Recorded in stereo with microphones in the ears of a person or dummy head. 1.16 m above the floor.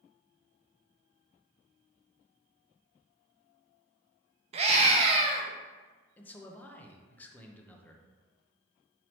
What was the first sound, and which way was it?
A scream, 35° right (ahead or behind).